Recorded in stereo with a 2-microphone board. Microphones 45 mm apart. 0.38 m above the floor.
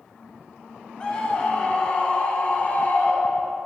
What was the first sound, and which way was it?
A scream, 20° left (ahead or behind).